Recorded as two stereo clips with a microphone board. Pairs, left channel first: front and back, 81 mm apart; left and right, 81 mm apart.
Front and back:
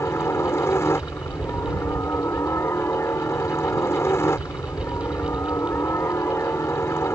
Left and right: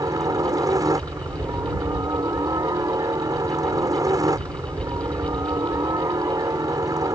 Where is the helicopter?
55° right.